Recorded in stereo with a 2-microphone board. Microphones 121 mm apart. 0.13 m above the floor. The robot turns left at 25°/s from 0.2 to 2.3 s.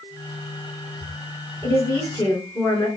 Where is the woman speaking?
35° left (ahead or behind), 2 m; by 2.9 s 25° left (ahead or behind), 2 m.